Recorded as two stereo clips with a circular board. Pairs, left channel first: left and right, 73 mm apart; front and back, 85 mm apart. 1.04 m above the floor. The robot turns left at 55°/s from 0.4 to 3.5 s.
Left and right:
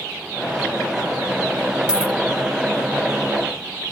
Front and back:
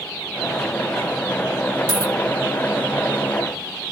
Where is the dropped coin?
165° right, 0.7 m; by 2.1 s straight behind, 0.7 m.